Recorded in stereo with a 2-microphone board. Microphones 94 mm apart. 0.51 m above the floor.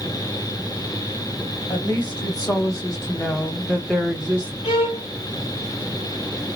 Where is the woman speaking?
45° left (ahead or behind), 1.9 m; by 4.5 s 20° right (ahead or behind), 1.0 m.